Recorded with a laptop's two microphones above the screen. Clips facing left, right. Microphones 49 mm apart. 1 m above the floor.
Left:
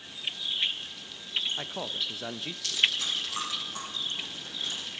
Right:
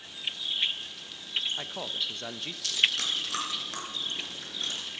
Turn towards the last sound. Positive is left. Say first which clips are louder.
# right 1 dB
turn(degrees=-75)  # may be behind; listen again after turning